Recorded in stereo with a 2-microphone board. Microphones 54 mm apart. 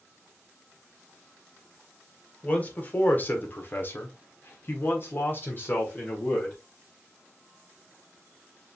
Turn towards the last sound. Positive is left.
turn(degrees=35)  # may be behind; listen again after turning